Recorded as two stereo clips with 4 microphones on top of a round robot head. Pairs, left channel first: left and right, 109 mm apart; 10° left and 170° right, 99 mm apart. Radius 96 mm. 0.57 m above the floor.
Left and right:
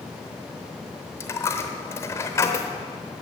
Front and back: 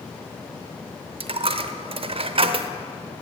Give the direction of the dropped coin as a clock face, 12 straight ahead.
7 o'clock.